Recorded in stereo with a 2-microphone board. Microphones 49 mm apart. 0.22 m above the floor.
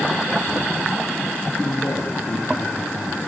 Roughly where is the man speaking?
Left.